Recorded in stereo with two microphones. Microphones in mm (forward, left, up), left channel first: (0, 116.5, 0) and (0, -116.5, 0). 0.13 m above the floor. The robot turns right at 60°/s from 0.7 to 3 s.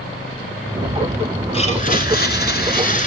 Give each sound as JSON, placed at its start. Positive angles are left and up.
{"t": 1.5, "sound": "a blender", "azimuth_deg": 40, "distance_m": 0.9}